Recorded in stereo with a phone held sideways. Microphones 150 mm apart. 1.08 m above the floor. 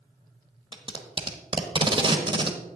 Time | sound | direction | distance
0.7 | tape being pulled | 30° right (ahead or behind) | 0.9 m